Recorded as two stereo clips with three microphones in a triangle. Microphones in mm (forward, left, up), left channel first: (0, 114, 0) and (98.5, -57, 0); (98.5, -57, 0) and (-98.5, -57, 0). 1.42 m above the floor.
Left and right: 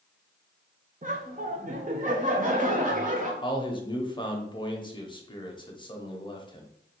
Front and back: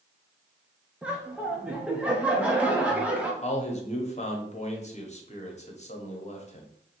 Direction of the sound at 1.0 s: 95° right.